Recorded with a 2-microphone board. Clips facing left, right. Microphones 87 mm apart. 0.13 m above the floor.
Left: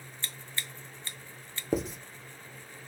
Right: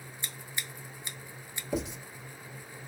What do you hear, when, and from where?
0.2 s scissors: 15° right (ahead or behind), 0.5 m
1.7 s writing: 45° left (ahead or behind), 0.7 m